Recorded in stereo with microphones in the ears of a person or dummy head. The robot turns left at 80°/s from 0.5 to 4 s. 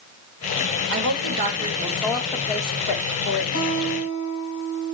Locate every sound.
0.9 s a woman speaking: 80° right, 4 m; by 3.4 s 75° left, 4 m
3.5 s a guitar: 120° left, 6 m; by 4.9 s 85° left, 6 m